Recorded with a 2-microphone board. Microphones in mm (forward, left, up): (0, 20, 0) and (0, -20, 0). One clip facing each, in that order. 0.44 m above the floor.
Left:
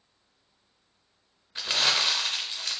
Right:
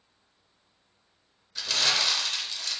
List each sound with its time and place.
1.6 s crumpling: 30° left (ahead or behind), 0.6 m